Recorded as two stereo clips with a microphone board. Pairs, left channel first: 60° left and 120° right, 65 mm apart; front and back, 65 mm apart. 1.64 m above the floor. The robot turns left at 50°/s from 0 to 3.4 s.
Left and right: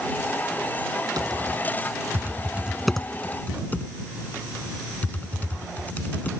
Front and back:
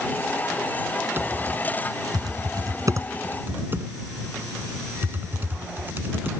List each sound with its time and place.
1.2 s typing on a keyboard: 125° right; by 6.3 s 125° left